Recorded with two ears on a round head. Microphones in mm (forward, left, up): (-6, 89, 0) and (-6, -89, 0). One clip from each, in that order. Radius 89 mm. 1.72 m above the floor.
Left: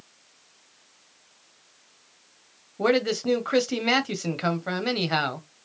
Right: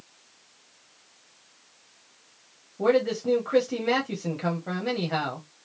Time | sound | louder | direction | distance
2.8 | a man speaking | even | 45° left (ahead or behind) | 0.7 m